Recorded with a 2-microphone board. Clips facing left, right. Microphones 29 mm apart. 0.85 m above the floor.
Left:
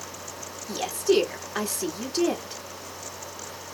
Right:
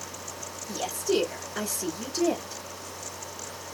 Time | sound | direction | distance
0.7 | a woman speaking | 45° left (ahead or behind) | 1.9 m